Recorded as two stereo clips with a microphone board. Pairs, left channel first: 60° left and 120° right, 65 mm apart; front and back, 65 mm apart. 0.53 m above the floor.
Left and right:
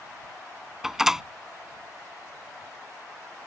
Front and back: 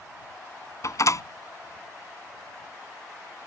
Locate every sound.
0.8 s a door slam: 35° right